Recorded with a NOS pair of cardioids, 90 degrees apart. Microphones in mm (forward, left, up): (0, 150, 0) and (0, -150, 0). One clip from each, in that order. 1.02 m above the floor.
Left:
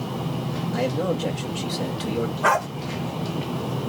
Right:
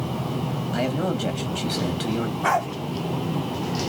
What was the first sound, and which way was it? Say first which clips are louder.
A man speaking: left 1 dB; 5° right.